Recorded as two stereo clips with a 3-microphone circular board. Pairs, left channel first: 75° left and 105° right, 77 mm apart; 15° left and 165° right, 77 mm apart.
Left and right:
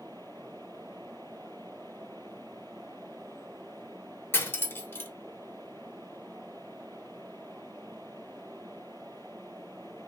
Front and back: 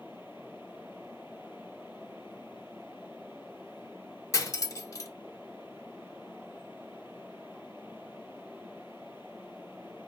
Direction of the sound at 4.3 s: 25° left.